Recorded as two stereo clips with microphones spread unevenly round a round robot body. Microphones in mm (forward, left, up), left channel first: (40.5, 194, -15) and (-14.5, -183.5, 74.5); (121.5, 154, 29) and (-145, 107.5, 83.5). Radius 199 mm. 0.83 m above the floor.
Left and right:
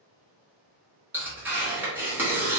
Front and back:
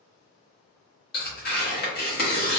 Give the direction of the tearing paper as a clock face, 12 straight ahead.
12 o'clock.